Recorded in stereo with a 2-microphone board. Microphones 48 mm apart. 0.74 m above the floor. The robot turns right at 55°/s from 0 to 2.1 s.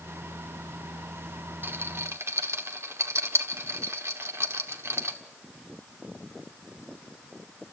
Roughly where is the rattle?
Right.